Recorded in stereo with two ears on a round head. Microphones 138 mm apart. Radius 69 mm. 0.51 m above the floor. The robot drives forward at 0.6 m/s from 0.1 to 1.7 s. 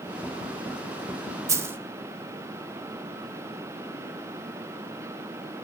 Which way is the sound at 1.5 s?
20° right (ahead or behind).